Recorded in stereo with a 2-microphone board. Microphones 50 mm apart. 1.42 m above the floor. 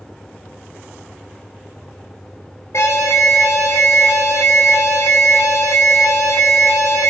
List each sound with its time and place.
2.7 s an alarm: 65° left (ahead or behind), 1.5 m